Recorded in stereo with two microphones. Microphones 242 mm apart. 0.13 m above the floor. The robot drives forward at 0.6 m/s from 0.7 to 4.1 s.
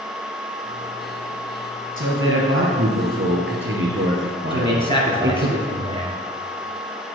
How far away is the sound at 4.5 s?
About 1.6 m.